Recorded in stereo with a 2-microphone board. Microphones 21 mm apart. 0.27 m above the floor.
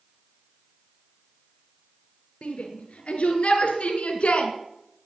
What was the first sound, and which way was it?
A shout, 70° left (ahead or behind).